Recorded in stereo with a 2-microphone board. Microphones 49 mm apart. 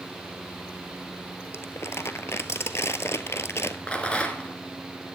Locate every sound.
1.5 s crumpling: 65° left (ahead or behind), 0.8 m
3.9 s a rattle: 25° left (ahead or behind), 2 m